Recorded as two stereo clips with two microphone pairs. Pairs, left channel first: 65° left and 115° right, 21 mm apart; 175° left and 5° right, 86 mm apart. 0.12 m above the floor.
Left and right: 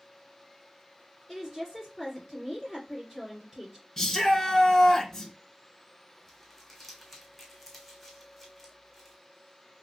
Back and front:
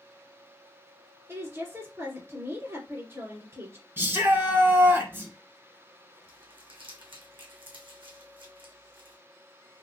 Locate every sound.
1.3 s a woman speaking: 35° right, 2.0 m
4.0 s a shout: 15° left, 1.2 m
6.3 s crumpling: 15° right, 1.4 m